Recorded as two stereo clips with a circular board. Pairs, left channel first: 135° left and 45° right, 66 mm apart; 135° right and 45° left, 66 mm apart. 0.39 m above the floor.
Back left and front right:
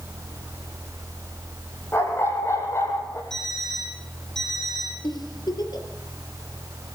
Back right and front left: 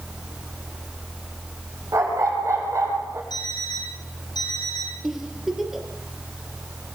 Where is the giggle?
130° left, 4.5 m.